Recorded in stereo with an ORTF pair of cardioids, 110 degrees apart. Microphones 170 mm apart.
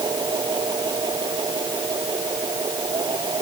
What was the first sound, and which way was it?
A machine running, 25° right.